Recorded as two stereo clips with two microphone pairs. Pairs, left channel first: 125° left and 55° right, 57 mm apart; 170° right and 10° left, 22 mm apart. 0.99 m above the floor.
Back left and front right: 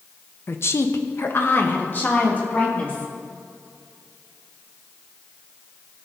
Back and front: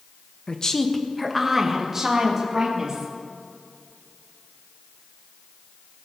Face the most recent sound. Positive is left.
turn(degrees=60)